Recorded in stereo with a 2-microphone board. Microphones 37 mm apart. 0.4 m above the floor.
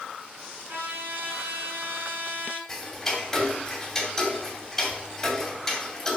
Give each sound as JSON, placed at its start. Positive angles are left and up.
{"t": 0.7, "sound": "a trumpet", "side_deg": -65, "distance_m": 4.0}
{"t": 2.7, "sound": "ticking", "side_deg": 10, "distance_m": 2.5}